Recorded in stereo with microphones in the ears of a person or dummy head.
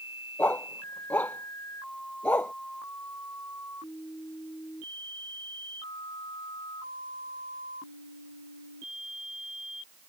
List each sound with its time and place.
0.4 s a dog barking: 15° left (ahead or behind)